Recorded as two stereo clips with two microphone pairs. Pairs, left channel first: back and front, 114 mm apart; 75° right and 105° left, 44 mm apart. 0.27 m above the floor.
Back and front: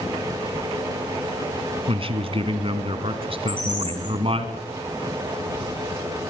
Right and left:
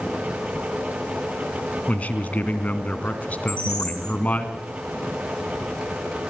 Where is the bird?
130° left, 9 m.